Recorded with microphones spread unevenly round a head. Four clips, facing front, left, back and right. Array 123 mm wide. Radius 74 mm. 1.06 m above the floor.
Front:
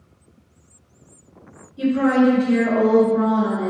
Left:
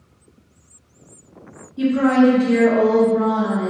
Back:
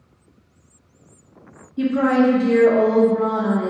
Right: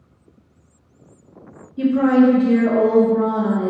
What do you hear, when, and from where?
1.8 s a woman speaking: 170° right, 0.9 m; by 3.7 s 70° right, 0.9 m